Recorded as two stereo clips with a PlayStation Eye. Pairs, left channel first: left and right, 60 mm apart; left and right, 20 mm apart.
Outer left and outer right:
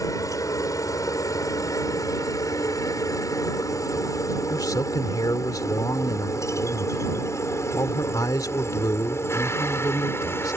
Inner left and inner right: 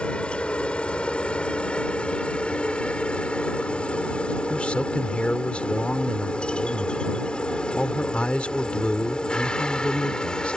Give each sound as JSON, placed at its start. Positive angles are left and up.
{"t": 0.0, "sound": "a helicopter", "side_deg": 60}
{"t": 4.5, "sound": "a man speaking", "side_deg": 70}